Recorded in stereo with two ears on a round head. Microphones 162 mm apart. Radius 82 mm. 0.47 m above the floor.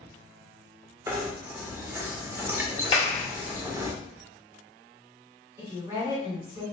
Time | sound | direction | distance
1.1 | knocking | 15° right (ahead or behind) | 0.6 m
2.9 | a clap | 30° left (ahead or behind) | 1.1 m
5.6 | a woman speaking | 20° right (ahead or behind) | 1.6 m